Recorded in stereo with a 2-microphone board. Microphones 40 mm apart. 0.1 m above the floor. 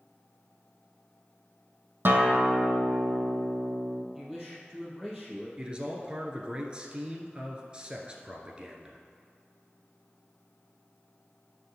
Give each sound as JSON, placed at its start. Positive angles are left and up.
{"t": 2.0, "sound": "a guitar", "side_deg": -55, "distance_m": 0.9}
{"t": 4.2, "sound": "a man speaking", "side_deg": -5, "distance_m": 3.0}
{"t": 5.6, "sound": "a man speaking", "side_deg": -25, "distance_m": 1.2}